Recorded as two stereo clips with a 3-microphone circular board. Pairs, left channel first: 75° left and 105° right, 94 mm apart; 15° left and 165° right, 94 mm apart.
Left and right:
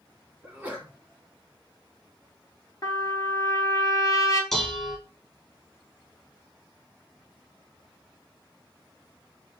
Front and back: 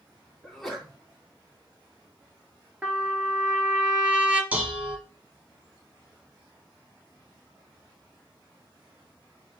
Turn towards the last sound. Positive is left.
turn(degrees=160)